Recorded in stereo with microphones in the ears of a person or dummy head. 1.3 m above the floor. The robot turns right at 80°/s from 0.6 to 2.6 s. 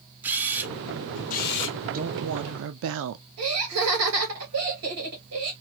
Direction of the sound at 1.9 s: 135° right.